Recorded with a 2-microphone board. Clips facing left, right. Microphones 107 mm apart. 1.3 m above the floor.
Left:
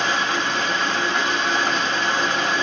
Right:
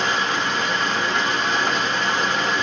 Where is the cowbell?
No cowbell in this recording.